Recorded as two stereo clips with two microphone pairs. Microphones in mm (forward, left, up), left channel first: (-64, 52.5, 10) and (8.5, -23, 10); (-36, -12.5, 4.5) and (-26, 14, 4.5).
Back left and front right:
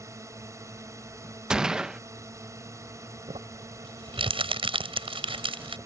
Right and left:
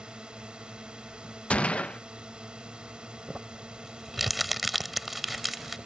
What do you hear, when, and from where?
0.0 s a drone: 15° left
1.5 s a gunshot: 130° right
3.3 s crumpling: 15° right